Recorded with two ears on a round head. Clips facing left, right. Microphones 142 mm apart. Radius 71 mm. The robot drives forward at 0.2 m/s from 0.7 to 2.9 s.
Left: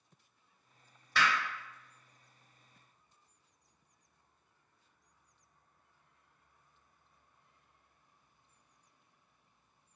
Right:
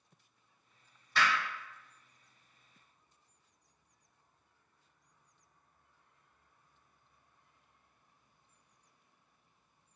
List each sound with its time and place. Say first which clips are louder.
1.1 s hammering: even; 60° left (ahead or behind), 1.2 m